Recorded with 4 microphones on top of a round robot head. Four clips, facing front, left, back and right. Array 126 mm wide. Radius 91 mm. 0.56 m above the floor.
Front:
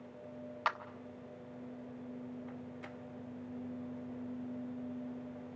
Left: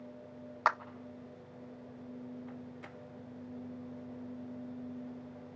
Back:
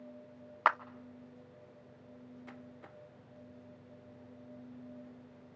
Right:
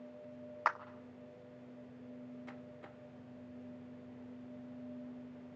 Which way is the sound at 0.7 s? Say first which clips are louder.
Left 5 dB, back 7 dB; 155° left.